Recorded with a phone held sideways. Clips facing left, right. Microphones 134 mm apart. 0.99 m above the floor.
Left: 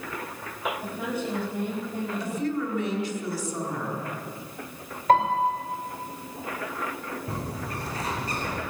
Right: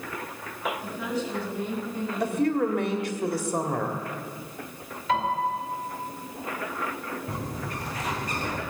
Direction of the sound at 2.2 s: 55° right (ahead or behind).